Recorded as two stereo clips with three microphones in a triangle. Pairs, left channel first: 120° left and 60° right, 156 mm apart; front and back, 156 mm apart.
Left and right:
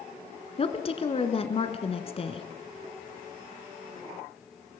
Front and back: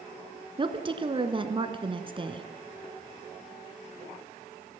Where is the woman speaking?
145° left, 1.6 m.